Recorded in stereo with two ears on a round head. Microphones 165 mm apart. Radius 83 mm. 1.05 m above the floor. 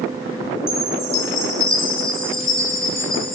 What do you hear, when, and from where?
0.7 s a chime: 30° left (ahead or behind), 2.5 m